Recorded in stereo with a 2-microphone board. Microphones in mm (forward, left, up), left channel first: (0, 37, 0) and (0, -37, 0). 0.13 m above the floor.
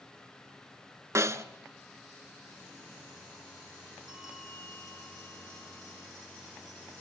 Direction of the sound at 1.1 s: 40° right (ahead or behind).